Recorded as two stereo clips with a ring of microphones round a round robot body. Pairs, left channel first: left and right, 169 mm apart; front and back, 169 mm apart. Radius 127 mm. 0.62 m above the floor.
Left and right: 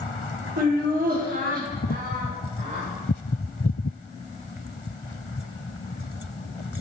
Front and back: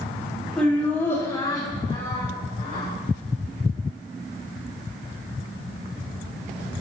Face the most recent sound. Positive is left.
turn(degrees=-50)